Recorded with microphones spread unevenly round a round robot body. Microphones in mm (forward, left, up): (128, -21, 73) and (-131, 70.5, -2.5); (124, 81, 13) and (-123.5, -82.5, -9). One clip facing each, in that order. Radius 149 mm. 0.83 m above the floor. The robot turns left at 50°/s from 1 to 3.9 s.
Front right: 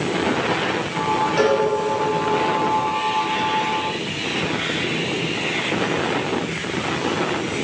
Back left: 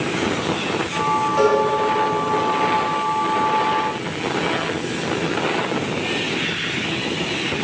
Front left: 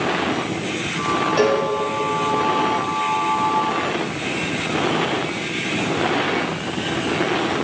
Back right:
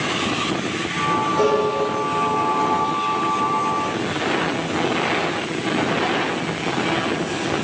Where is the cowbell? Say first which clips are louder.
Back left 2 dB, even; 40° left, 1.9 m; by 1.6 s 25° left, 1.9 m.